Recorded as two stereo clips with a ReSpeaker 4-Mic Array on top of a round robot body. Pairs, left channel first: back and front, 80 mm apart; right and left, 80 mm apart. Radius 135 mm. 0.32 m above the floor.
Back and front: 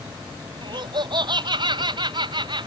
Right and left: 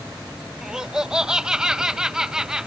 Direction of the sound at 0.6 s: 10° left.